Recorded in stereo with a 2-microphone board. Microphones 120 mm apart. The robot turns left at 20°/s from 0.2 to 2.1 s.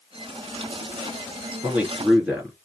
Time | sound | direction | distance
1.6 | a man speaking | 20° right (ahead or behind) | 3.5 m